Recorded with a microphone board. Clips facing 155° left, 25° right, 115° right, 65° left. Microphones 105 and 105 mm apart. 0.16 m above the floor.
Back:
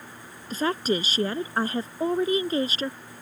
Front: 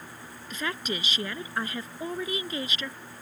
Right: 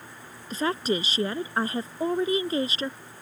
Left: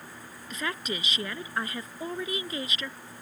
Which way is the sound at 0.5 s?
160° right.